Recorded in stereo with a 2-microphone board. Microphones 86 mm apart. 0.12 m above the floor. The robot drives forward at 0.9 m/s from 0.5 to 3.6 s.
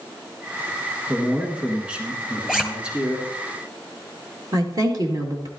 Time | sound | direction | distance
1.1 | a man speaking | 10° right (ahead or behind) | 1.9 m
2.5 | a zipper | 5° right (ahead or behind) | 1.5 m
4.5 | a woman speaking | 50° right (ahead or behind) | 2.5 m